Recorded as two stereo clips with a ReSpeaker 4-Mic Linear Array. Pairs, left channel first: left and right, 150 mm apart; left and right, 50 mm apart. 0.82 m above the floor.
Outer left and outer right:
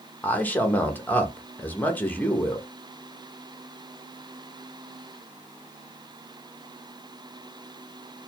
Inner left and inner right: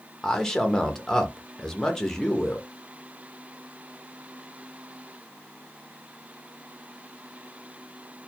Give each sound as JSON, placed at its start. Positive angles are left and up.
{"t": 0.2, "sound": "a man speaking", "side_deg": 10, "distance_m": 0.8}